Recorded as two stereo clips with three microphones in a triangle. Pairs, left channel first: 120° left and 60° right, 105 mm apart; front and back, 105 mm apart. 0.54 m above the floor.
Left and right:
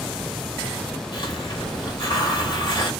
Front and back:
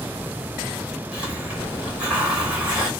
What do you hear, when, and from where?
1.1 s a hiss: 105° left, 1.8 m